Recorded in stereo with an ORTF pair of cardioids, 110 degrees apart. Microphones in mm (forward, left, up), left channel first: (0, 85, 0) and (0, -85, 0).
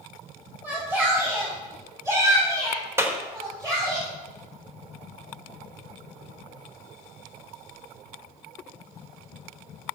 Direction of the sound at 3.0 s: 15° right.